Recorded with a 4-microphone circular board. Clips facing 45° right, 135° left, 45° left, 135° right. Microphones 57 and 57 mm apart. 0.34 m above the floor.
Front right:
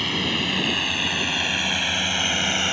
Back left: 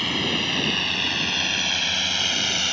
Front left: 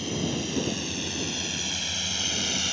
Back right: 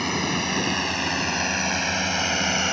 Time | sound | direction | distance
0.0 | a drone | 135° right | ?